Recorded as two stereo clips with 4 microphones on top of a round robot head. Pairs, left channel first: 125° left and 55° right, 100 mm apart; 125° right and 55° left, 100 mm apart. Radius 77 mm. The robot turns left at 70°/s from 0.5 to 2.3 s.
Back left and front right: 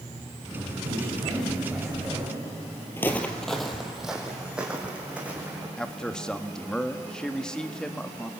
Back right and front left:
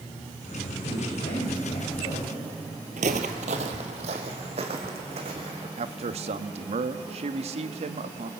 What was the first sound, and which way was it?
A man speaking, 75° right.